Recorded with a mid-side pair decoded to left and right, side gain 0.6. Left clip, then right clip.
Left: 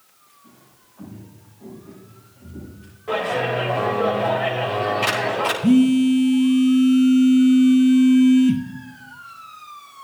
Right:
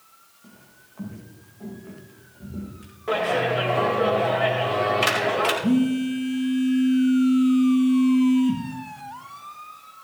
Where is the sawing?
No sawing in this recording.